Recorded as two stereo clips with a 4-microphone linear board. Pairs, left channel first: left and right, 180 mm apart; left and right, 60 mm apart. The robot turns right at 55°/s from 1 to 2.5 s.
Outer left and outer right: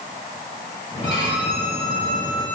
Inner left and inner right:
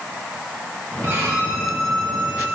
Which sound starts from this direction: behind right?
A violin, at 1.0 s.